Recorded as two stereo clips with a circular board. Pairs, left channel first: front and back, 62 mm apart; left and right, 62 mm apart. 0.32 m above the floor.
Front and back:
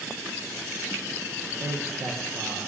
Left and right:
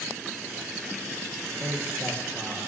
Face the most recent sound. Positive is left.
turn(degrees=-140)